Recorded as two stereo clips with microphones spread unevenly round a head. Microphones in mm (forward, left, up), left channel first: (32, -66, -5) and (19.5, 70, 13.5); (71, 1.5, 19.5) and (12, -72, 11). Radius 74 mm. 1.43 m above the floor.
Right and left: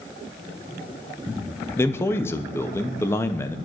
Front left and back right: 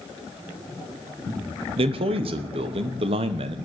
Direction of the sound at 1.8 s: 155° right.